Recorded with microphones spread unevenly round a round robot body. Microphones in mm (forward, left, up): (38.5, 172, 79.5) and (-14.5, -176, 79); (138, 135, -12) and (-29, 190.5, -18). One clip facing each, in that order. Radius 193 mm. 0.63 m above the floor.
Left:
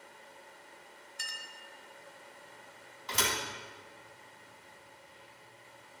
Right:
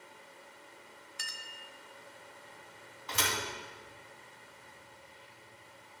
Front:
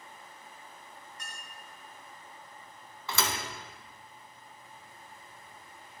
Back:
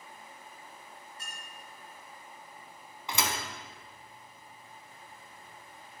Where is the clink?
120° right, 0.8 m.